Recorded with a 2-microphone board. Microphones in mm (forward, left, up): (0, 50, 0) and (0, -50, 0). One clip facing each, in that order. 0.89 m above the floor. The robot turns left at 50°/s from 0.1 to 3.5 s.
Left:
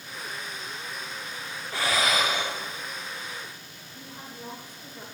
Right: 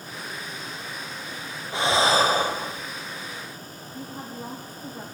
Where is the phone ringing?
I don't hear a phone ringing.